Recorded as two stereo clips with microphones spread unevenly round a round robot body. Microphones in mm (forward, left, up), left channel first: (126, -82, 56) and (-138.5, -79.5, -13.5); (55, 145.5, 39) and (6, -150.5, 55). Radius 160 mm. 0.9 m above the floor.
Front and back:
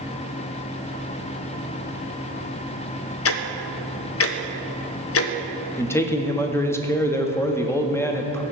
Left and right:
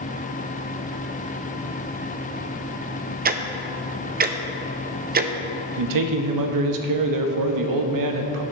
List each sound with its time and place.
3.2 s ticking: 40° right, 0.6 m
5.8 s a man speaking: 85° right, 1.0 m